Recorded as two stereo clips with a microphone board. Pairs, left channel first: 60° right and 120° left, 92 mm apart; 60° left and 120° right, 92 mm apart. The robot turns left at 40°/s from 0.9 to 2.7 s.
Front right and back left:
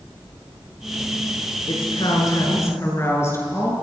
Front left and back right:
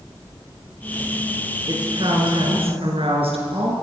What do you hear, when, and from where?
1.7 s a woman speaking: 80° right, 7.5 m; by 3.7 s 120° right, 7.5 m